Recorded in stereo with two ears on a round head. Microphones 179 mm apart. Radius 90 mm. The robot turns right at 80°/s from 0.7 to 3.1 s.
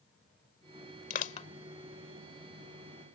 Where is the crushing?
45° left (ahead or behind); by 1.5 s 30° left (ahead or behind).